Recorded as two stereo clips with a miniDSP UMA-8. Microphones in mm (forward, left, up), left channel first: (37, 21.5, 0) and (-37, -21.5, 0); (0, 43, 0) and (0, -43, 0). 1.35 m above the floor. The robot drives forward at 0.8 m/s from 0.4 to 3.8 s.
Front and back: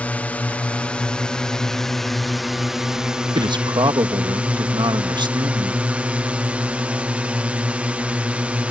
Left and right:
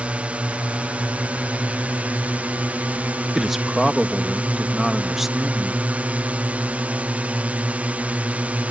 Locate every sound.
0.0 s a drone: 30° right; by 8.7 s 110° right
3.4 s a man speaking: 175° right